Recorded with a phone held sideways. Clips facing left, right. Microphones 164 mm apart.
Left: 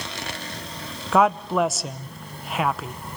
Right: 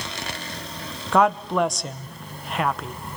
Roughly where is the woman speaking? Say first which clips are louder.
Even; centre.